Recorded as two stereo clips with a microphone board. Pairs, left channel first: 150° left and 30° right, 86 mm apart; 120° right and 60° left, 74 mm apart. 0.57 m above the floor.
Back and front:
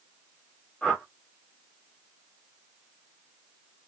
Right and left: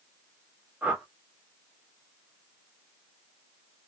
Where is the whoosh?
80° left, 1.2 m.